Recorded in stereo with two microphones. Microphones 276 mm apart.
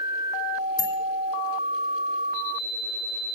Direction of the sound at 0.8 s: 15° right (ahead or behind).